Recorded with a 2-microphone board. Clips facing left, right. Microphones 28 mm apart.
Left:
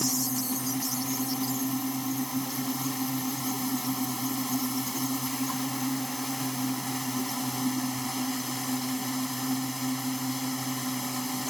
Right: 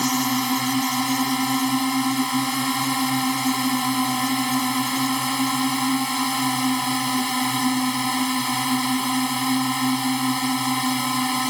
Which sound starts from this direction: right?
A drone, at 0.0 s.